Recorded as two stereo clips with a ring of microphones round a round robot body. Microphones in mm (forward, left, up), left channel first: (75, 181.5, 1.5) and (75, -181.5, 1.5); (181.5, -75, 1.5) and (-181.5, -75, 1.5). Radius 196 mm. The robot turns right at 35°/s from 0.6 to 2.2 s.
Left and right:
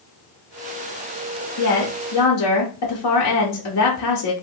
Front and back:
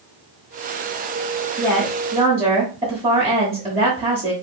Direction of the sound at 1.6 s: 90° left.